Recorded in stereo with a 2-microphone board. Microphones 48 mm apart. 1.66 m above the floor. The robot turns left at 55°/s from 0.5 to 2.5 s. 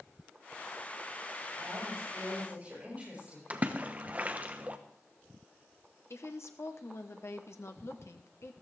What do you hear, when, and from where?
1.6 s a woman speaking: 100° right, 9 m; by 3.4 s 150° right, 9 m
3.5 s a splash: 30° right (ahead or behind), 0.9 m
6.1 s a woman speaking: 65° left (ahead or behind), 1.2 m